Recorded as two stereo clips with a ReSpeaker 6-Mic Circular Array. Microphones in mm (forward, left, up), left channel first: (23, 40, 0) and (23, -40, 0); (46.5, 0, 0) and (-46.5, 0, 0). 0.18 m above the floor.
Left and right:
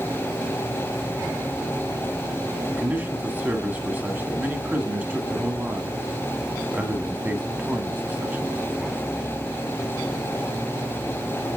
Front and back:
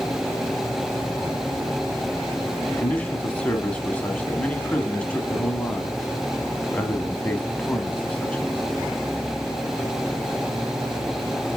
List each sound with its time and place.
2.7 s a man speaking: 60° right, 1.1 m